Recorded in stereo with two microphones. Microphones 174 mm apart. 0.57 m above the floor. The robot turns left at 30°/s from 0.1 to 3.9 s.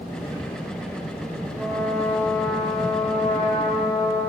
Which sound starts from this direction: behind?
A trumpet, at 1.6 s.